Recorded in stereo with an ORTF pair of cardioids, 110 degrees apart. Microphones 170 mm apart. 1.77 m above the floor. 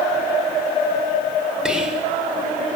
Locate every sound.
1.6 s whispering: 5° right, 1.8 m